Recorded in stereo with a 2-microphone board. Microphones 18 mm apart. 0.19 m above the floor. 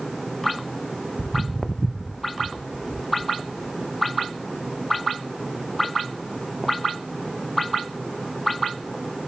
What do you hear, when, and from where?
1.2 s footsteps: centre (ahead or behind), 1.0 m; by 9.0 s 55° left (ahead or behind), 3.5 m